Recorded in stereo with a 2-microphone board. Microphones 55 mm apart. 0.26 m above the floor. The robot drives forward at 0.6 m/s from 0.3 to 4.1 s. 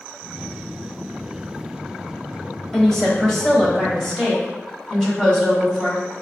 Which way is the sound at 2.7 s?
5° left (ahead or behind).